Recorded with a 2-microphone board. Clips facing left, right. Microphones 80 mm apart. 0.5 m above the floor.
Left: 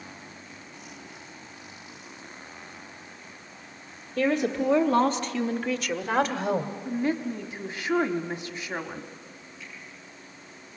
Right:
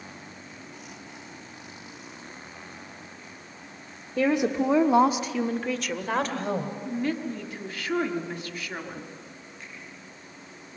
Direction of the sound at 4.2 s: 15° right (ahead or behind).